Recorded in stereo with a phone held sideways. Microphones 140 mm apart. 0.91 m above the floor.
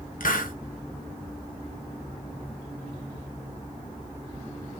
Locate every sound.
0.2 s a hiss: 75° left (ahead or behind), 0.6 m